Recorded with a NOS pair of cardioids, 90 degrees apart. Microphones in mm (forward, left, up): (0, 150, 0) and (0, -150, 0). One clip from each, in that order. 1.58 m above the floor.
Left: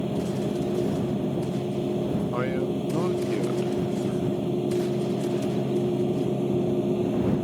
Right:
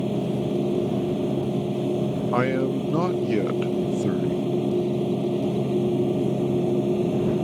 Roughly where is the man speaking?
Ahead right.